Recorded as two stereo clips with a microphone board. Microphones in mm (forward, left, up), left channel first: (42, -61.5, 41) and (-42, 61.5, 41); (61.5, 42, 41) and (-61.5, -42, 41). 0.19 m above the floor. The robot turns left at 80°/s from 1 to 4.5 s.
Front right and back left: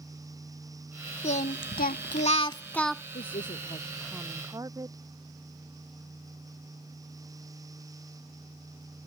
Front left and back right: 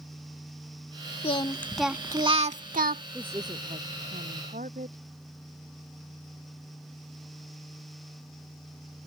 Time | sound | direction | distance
1.2 | singing | 10° right | ?
3.1 | a woman speaking | 60° right | ?